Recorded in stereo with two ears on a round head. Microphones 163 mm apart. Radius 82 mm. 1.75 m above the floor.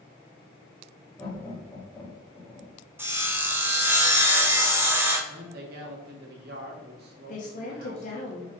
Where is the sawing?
10° right (ahead or behind), 1.3 m.